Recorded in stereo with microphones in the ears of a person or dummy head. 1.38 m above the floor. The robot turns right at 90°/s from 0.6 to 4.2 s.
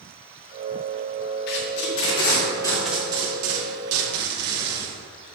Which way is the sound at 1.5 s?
55° left (ahead or behind).